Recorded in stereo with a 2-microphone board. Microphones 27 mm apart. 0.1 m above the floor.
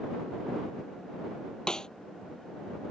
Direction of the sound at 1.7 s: 30° left (ahead or behind).